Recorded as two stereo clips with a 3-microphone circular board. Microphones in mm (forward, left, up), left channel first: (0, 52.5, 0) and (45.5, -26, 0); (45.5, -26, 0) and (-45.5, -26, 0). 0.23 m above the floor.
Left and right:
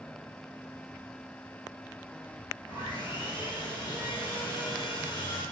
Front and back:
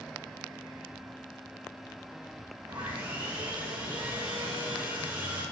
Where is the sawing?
155° left, 3 m.